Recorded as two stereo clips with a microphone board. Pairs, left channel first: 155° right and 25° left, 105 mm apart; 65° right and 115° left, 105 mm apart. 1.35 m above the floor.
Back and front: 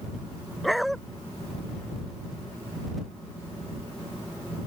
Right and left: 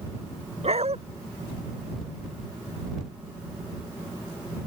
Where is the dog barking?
115° left.